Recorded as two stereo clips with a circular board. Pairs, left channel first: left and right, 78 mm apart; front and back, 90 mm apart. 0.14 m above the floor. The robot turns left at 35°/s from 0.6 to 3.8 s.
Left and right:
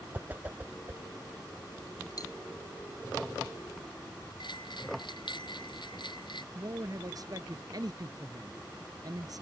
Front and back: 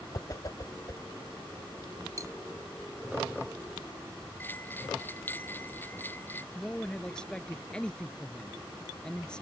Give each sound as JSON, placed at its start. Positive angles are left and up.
{"t": 0.1, "sound": "a whoosh", "azimuth_deg": -30}
{"t": 2.2, "sound": "cutlery clinking", "azimuth_deg": 130}
{"t": 4.4, "sound": "a bell", "azimuth_deg": 70}
{"t": 6.5, "sound": "a man speaking", "azimuth_deg": -80}